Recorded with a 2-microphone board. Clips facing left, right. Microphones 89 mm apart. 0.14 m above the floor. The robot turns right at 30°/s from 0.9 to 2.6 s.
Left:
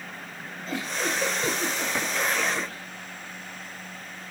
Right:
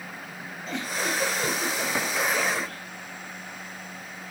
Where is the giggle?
175° left, 3 m; by 2.8 s 135° right, 3 m.